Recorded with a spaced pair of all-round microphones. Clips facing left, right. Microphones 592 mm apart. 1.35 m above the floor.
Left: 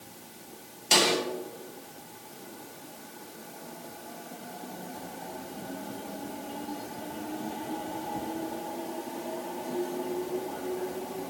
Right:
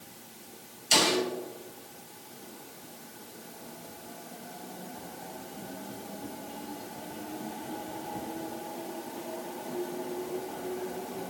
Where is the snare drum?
70° left (ahead or behind), 3 m.